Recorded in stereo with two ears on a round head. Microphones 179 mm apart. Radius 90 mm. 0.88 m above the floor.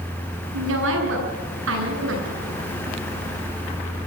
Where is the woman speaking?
70° right (ahead or behind), 9 m.